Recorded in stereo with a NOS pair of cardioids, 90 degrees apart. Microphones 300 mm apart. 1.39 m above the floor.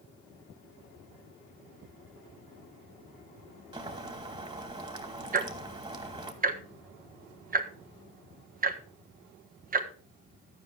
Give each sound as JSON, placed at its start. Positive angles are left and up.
{"t": 3.7, "sound": "boiling", "azimuth_deg": -15, "distance_m": 3.0}
{"t": 5.3, "sound": "ticking", "azimuth_deg": -30, "distance_m": 1.6}